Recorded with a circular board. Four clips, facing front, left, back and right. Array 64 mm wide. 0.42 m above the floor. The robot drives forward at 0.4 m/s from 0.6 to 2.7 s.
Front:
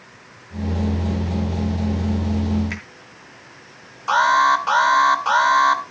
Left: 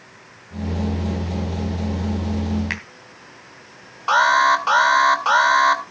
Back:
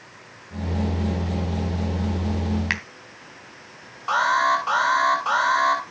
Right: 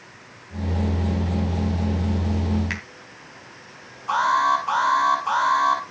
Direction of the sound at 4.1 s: 75° left.